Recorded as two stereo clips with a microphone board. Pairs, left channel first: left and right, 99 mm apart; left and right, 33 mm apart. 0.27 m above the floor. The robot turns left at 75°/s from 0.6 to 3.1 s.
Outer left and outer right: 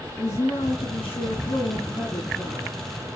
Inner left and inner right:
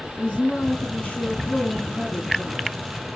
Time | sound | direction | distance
0.2 | a woman speaking | 145° left | 3.5 m